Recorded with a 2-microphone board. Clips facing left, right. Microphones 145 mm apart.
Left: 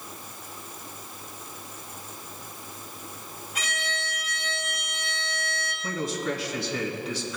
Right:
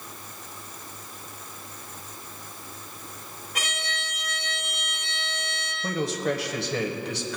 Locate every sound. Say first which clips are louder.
3.5 s a violin: left 1 dB; 70° right (ahead or behind), 2 m
5.8 s a man speaking: right 3 dB; 75° right (ahead or behind), 1.2 m